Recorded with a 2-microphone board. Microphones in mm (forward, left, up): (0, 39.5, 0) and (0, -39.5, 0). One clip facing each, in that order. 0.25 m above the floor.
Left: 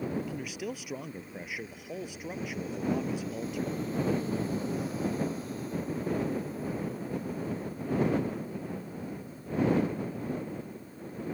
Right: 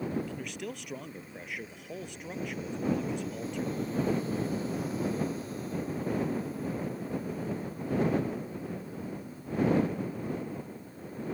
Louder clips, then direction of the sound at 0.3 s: Left 2 dB; 5° left (ahead or behind).